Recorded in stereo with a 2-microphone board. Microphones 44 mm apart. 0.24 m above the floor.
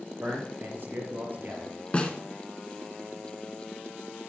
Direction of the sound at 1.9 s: 25° left (ahead or behind).